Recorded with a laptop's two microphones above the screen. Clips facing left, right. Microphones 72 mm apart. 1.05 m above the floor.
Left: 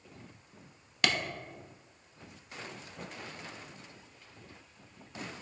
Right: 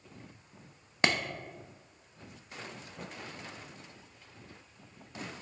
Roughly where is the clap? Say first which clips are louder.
Right 2 dB; right.